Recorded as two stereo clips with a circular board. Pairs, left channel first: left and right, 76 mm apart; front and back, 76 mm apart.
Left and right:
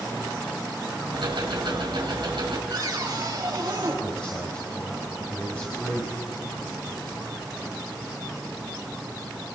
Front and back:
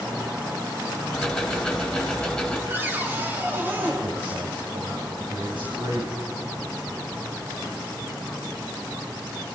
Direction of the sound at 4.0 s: 165° left.